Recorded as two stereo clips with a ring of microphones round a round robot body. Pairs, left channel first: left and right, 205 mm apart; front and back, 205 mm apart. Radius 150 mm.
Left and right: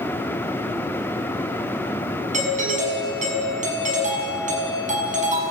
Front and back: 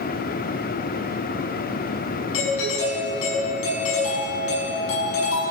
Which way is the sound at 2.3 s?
35° right.